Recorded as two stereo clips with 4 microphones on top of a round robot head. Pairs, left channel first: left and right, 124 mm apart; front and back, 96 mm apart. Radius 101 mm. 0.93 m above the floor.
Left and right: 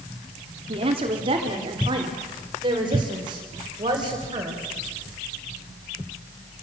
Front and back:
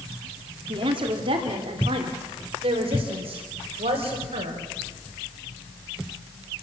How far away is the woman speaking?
About 2.5 m.